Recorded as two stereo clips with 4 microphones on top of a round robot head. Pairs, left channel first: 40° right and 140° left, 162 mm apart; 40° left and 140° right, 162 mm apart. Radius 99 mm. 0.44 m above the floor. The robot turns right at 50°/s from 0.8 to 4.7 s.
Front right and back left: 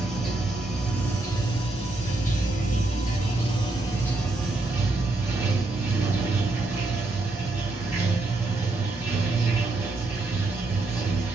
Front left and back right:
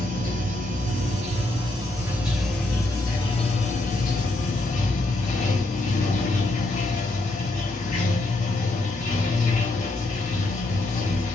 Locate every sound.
0.0 s running water: 130° right, 1.2 m; by 11.3 s 65° left, 1.2 m